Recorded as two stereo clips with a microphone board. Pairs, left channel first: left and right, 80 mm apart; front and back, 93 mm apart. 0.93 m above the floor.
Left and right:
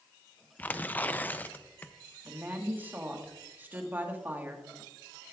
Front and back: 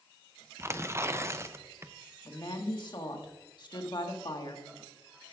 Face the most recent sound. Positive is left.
turn(degrees=-25)